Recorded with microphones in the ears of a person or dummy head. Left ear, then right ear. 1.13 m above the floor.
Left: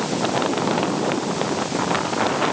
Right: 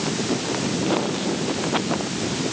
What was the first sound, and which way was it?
Only background noise.